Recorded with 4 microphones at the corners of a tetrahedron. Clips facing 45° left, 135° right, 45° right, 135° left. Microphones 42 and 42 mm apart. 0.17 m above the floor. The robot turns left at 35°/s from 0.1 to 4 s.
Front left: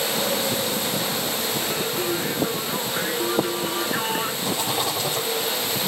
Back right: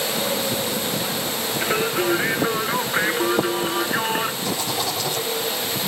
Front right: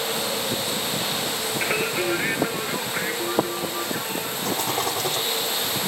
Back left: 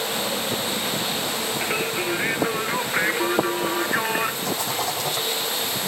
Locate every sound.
1.6 s singing: 120° right, 0.6 m; by 4.3 s 155° left, 0.6 m
4.4 s a rattle: 20° right, 6 m